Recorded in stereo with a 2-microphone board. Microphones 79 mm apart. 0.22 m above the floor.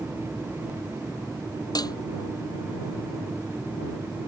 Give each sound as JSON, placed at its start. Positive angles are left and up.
{"t": 1.8, "sound": "dishes clattering", "side_deg": 60}